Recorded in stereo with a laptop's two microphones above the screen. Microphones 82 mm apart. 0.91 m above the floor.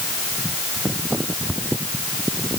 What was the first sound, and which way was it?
Only background noise.